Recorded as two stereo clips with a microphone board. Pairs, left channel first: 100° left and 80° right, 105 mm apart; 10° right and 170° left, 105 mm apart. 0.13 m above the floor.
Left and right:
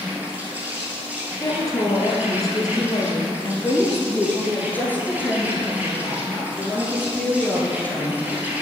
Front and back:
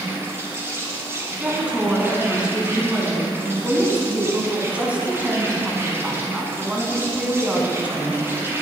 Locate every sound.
0.0 s an insect: 140° right, 1.5 m
1.4 s a woman speaking: 100° left, 1.3 m
3.6 s a woman speaking: 120° left, 1.0 m